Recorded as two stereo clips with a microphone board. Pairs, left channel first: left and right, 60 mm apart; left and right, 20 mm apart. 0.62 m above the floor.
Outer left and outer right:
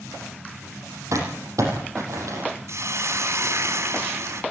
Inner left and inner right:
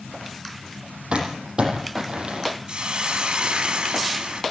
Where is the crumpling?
65° right (ahead or behind), 8 m.